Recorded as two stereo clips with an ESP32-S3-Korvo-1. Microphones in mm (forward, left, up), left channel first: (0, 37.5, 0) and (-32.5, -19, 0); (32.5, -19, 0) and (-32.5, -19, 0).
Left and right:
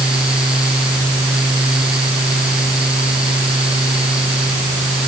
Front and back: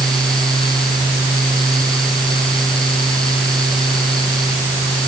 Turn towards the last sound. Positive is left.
No sound to turn to.